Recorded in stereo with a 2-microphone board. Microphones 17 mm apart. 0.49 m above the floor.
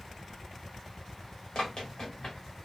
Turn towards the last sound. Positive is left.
turn(degrees=50)  # may be behind; listen again after turning